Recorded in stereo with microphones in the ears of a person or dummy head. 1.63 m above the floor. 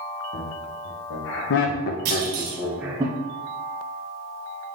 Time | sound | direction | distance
0.3 | laughter | 65° left (ahead or behind) | 1.3 m
2.0 | a clunk | 50° right (ahead or behind) | 0.9 m